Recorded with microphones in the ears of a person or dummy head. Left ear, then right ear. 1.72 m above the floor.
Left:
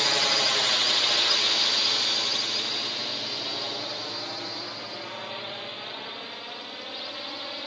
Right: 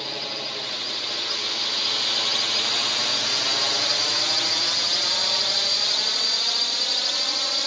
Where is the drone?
55° left (ahead or behind); by 7.7 s 80° right.